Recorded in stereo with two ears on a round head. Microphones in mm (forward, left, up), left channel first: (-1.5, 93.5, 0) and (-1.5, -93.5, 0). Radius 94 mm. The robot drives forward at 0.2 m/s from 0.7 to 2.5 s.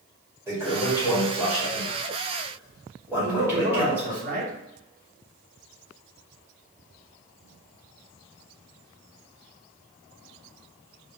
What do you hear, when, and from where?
0.5 s a toilet flushing: 15° right (ahead or behind), 2 m; by 4.2 s 10° right (ahead or behind), 2.5 m
3.2 s a man speaking: 40° right (ahead or behind), 1.6 m